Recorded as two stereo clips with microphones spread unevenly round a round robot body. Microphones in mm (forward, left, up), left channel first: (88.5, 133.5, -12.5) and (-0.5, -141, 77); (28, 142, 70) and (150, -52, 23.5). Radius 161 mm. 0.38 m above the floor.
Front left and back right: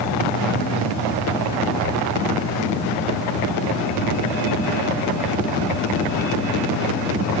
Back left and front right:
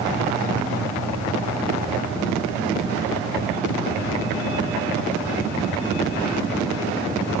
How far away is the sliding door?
No sliding door in this recording.